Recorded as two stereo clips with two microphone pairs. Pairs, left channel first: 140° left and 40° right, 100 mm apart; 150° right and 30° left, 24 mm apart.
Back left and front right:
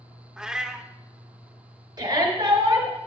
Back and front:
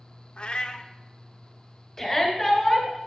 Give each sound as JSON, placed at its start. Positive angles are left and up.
{"t": 0.4, "sound": "a cat meowing", "azimuth_deg": -120, "distance_m": 0.6}
{"t": 2.0, "sound": "a shout", "azimuth_deg": -70, "distance_m": 1.7}